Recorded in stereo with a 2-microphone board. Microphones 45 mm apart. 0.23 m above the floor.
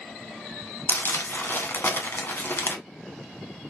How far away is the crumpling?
About 0.9 m.